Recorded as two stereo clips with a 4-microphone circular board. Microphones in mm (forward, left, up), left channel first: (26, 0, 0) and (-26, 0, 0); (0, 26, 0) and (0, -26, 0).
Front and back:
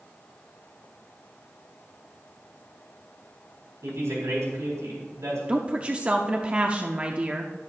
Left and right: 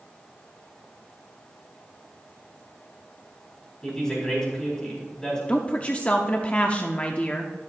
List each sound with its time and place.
3.8 s a woman speaking: 170° left, 4 m
5.5 s a woman speaking: 130° left, 0.8 m